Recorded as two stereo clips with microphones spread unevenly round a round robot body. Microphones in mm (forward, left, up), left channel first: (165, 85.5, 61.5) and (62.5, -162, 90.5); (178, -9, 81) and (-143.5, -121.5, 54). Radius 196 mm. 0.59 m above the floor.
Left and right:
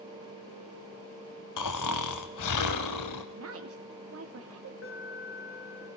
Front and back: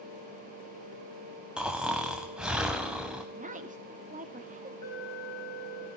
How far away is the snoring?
About 0.6 m.